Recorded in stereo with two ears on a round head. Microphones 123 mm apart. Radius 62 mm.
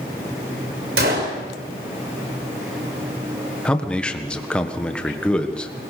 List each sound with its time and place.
1.0 s a gunshot: 80° right, 6 m
3.6 s a man speaking: 5° left (ahead or behind), 1.5 m